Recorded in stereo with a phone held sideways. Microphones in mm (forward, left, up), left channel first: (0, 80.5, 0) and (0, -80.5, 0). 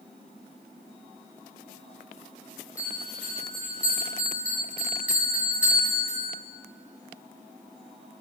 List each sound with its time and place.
2.8 s a bell: 10° right (ahead or behind), 1.5 m